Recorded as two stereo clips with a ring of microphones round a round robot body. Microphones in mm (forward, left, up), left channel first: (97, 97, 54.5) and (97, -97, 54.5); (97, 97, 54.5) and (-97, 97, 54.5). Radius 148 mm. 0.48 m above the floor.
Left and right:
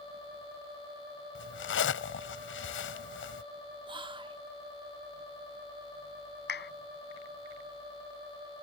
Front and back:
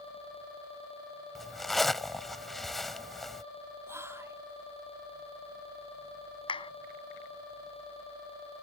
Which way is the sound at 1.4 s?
90° left.